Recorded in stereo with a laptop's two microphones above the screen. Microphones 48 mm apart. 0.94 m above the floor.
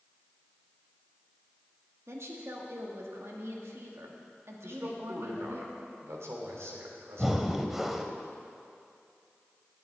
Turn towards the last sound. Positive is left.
turn(degrees=-5)  # may be behind; listen again after turning